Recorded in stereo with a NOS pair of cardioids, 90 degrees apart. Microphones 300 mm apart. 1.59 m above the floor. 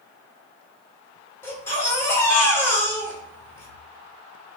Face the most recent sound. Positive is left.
turn(degrees=10)